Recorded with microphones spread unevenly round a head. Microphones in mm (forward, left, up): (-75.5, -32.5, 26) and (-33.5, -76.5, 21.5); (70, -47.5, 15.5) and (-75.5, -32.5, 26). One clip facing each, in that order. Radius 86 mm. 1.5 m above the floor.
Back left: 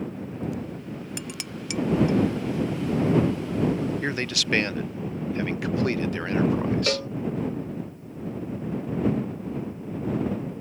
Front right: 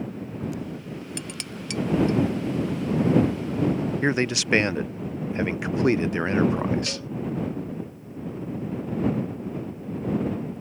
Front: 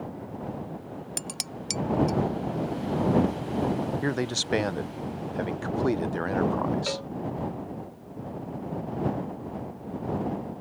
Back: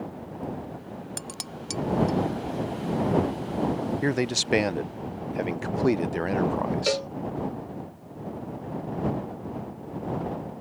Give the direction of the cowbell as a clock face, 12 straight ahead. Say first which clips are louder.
Back left 8 dB, back 6 dB; 7 o'clock.